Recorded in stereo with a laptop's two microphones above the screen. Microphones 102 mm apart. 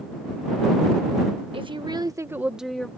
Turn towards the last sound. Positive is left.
turn(degrees=10)  # may be behind; listen again after turning